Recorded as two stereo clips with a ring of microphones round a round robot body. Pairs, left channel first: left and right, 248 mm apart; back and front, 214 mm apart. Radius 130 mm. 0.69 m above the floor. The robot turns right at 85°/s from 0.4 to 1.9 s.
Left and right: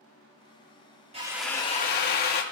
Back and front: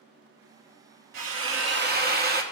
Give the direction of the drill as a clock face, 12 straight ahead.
1 o'clock.